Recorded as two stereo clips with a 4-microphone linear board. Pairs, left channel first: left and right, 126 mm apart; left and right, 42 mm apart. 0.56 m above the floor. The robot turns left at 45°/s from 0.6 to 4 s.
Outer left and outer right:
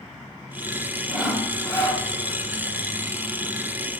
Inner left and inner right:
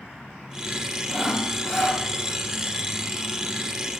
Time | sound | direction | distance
1.1 | sawing | 170° right | 0.8 m